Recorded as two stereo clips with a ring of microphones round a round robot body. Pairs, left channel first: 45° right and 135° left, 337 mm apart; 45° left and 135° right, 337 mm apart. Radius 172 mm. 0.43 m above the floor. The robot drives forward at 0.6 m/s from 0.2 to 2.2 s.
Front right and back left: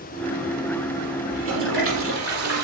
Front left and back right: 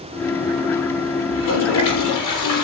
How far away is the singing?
No singing in this recording.